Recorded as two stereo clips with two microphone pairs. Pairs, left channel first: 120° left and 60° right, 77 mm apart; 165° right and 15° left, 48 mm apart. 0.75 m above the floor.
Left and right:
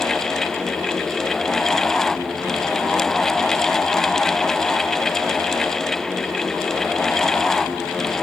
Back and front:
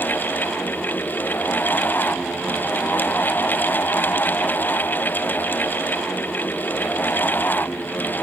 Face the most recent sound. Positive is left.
No sound to turn to.